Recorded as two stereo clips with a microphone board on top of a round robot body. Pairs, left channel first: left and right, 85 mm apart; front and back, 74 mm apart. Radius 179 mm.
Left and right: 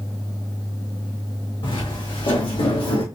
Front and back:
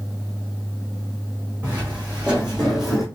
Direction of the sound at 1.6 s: 110° left.